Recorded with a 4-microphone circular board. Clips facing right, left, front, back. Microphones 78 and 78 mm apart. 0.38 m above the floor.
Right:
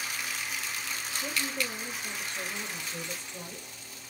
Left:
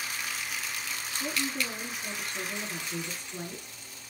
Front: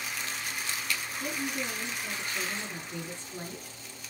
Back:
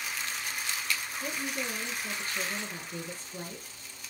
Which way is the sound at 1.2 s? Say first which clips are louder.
Left 2 dB, front 1 dB; 70° left.